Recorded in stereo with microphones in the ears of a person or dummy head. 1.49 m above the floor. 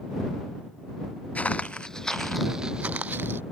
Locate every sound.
1.4 s footsteps: centre (ahead or behind); by 3.4 s 15° right (ahead or behind)